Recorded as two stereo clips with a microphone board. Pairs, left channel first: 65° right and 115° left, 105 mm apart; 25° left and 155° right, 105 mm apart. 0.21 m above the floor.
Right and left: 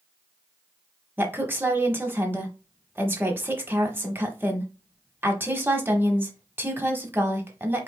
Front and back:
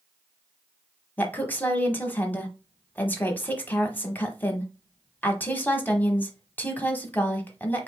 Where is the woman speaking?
70° left, 1.0 m.